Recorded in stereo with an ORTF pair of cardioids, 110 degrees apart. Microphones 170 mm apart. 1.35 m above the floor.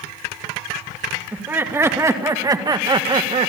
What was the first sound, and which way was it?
Laughter, 10° right.